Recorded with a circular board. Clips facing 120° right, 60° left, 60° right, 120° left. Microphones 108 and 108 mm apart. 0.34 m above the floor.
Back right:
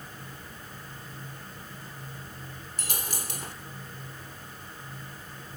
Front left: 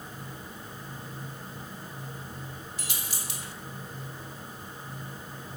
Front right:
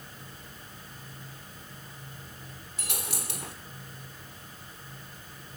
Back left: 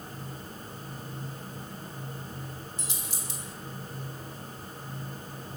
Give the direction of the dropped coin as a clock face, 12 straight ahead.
3 o'clock.